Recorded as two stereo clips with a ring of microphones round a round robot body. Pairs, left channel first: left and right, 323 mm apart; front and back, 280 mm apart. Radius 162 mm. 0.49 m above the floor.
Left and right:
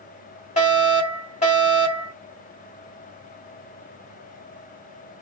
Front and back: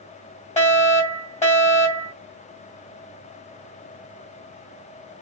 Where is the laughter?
No laughter in this recording.